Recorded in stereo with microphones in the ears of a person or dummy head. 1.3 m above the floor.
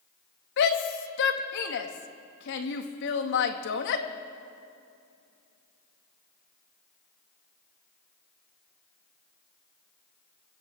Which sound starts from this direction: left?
A shout, at 0.6 s.